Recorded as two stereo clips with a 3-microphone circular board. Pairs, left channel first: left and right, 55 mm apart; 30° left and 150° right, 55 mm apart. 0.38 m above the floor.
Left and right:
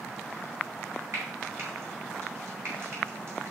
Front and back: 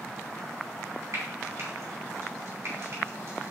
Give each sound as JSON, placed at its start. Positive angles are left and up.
{"t": 1.1, "sound": "frying", "azimuth_deg": -125, "distance_m": 3.0}